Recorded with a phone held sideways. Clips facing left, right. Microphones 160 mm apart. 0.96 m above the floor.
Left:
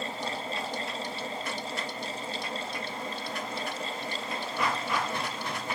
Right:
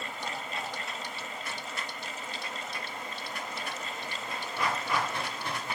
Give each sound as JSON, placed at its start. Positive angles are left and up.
{"t": 0.0, "sound": "a fan", "side_deg": 35}